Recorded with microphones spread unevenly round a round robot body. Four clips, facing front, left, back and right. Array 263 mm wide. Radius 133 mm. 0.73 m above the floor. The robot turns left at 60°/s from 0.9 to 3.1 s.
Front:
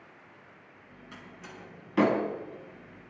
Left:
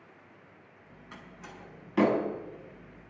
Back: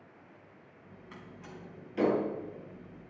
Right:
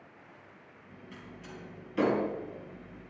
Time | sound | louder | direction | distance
1.1 | a door slam | even, front 1 dB | 95° left | 4.5 m